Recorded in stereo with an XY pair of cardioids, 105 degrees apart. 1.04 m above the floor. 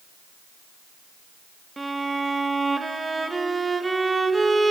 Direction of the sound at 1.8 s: 20° right.